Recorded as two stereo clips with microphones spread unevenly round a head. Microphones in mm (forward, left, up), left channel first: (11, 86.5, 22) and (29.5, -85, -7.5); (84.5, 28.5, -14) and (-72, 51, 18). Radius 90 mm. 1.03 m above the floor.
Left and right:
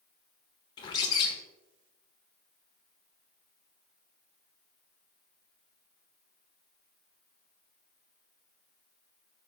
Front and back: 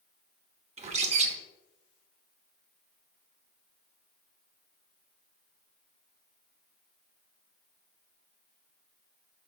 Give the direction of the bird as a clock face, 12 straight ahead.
7 o'clock.